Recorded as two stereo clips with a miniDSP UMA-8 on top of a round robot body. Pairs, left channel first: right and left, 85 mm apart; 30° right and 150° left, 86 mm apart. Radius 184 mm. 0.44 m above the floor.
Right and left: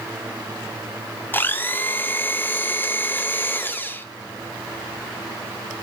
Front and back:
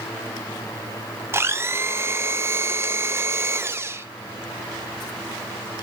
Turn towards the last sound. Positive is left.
turn(degrees=-155)